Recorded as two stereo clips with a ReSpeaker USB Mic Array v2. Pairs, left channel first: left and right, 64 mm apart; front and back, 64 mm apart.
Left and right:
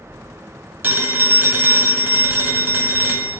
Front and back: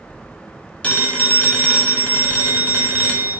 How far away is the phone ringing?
About 0.8 m.